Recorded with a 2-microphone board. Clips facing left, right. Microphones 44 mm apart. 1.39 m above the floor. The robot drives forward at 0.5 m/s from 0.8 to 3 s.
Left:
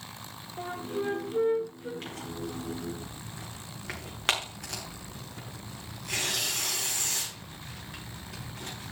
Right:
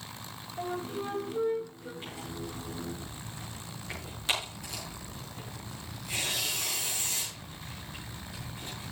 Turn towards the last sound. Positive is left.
turn(degrees=60)  # may be behind; listen again after turning